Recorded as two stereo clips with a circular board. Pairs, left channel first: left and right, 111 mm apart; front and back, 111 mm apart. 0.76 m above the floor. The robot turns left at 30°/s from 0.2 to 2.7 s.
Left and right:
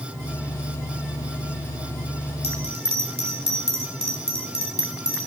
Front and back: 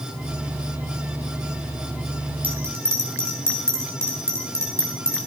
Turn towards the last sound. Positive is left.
turn(degrees=-115)